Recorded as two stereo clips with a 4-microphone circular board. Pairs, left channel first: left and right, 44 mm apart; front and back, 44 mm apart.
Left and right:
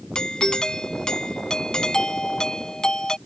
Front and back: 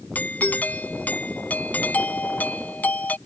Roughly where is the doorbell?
Ahead left.